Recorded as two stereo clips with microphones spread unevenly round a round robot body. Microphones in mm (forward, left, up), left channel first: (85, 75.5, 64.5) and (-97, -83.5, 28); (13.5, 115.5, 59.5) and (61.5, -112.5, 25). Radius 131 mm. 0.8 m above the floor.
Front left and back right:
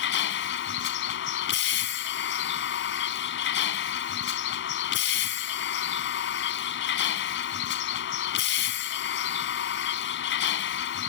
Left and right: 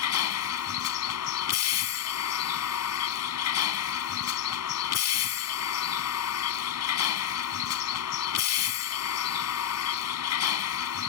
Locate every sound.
0.0 s a vehicle: 85° left